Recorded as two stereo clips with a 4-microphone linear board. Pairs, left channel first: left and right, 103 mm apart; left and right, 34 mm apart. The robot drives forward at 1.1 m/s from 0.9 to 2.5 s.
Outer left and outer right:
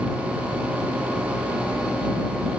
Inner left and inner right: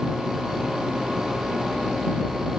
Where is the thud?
I don't hear a thud.